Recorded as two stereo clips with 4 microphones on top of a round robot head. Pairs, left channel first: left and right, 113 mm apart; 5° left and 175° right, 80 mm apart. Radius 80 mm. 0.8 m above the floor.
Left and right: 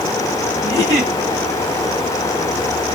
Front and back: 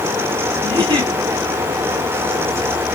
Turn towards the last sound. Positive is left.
turn(degrees=-135)